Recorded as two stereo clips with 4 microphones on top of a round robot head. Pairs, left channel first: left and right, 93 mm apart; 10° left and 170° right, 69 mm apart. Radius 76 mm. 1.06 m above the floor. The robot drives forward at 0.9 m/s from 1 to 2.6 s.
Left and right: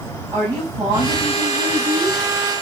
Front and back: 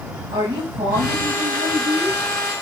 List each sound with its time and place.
0.3 s a woman speaking: 145° right, 7.5 m; by 2.2 s 150° right, 8 m